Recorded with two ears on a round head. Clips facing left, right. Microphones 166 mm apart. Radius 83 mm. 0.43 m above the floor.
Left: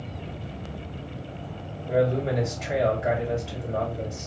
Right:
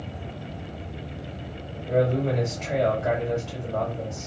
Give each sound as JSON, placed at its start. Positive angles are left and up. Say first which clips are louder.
{"t": 1.9, "sound": "a man speaking", "louder": "even", "side_deg": 10, "distance_m": 1.9}